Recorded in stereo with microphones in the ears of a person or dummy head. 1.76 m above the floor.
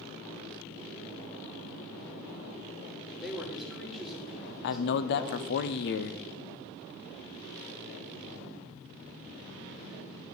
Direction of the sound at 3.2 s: Centre (ahead or behind).